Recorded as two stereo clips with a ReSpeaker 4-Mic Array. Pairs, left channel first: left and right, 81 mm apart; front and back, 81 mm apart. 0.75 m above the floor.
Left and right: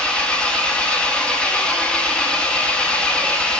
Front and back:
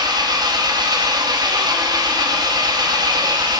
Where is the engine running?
165° left, 0.8 m.